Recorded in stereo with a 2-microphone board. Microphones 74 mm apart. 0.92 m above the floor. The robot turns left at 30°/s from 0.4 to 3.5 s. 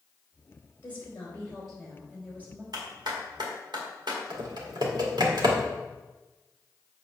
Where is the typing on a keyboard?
75° right (ahead or behind), 1.7 m.